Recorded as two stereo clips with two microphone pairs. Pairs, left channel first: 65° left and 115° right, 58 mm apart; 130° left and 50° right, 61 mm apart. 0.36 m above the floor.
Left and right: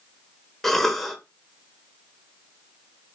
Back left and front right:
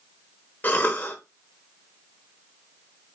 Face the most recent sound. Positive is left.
turn(degrees=145)